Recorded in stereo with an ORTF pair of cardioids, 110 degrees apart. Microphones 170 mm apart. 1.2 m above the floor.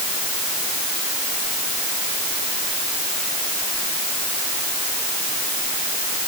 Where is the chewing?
I don't hear chewing.